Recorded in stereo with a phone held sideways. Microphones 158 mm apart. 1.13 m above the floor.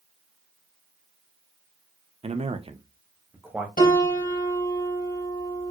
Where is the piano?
70° left (ahead or behind), 2.5 m.